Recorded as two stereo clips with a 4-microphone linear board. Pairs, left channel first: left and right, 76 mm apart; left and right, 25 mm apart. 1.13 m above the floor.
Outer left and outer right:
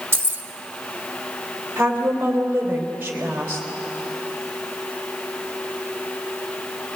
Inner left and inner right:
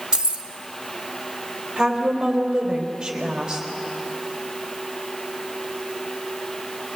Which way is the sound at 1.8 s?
25° right (ahead or behind).